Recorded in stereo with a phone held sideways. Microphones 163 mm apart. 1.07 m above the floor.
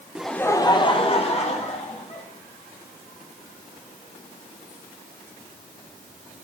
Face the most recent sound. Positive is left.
turn(degrees=45)  # may be behind; listen again after turning